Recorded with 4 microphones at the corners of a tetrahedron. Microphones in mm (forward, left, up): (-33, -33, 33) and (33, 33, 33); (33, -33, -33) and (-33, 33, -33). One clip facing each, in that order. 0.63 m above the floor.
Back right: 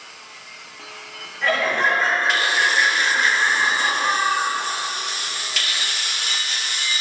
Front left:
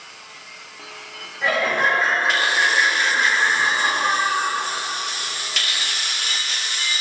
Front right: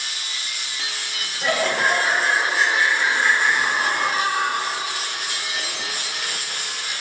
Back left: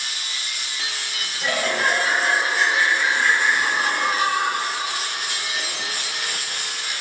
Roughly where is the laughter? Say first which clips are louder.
Even, front right 2 dB; ahead right.